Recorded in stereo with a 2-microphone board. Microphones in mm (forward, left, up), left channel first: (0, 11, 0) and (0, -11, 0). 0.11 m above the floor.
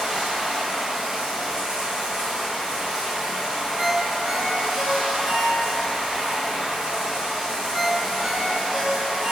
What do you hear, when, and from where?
0.0 s running water: 30° right (ahead or behind), 1.6 m
3.8 s a ringtone: 25° right (ahead or behind), 0.9 m